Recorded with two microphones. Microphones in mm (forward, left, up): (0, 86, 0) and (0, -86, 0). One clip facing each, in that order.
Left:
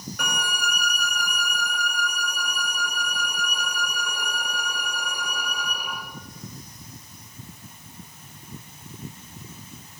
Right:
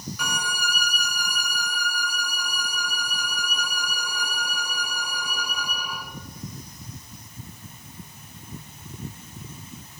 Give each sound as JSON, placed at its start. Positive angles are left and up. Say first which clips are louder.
{"t": 0.2, "sound": "a violin", "louder": "left 3 dB", "side_deg": 60, "distance_m": 3.5}